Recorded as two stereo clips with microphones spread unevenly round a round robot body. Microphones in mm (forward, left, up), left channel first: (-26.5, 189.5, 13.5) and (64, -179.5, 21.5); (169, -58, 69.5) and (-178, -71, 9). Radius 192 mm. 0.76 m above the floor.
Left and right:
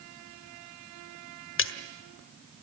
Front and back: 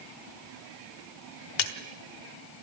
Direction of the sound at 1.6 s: 45° left.